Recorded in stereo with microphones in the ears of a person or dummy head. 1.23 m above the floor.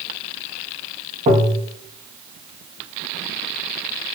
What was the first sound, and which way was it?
Tapping, 40° right (ahead or behind).